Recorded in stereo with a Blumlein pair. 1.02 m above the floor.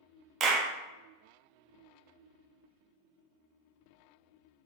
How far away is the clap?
About 0.5 m.